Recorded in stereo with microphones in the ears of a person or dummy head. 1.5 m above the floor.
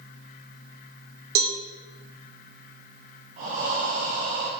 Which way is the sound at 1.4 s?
60° right (ahead or behind).